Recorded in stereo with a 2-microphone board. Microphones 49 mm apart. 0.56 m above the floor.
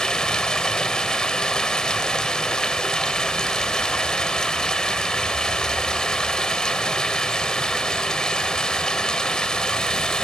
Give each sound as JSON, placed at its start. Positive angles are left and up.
{"t": 0.0, "sound": "running water", "side_deg": 15, "distance_m": 1.4}